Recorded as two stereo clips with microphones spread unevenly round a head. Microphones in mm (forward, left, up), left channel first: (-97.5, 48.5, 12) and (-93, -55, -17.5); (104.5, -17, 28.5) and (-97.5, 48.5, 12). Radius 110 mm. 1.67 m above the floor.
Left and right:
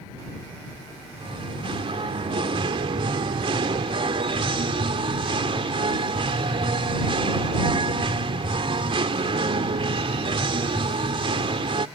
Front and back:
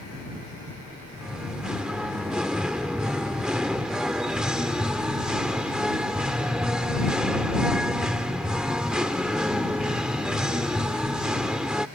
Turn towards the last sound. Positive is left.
turn(degrees=-105)